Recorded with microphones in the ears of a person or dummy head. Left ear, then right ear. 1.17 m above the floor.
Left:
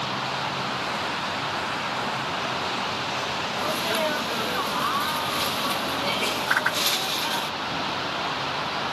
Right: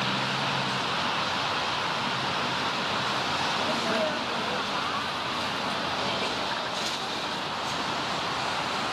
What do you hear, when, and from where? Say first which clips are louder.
3.6 s a sneeze: left 2 dB; 15° left (ahead or behind)
6.5 s a whoosh: left 7 dB; 70° left (ahead or behind)